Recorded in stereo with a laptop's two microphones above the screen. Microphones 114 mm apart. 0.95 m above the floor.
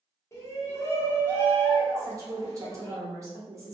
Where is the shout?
25° left (ahead or behind), 0.9 m.